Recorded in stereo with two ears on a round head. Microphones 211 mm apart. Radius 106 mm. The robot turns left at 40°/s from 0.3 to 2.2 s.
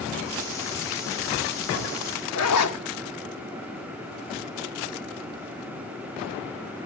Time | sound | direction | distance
2.4 | a zipper | 75° left (ahead or behind) | 1.8 m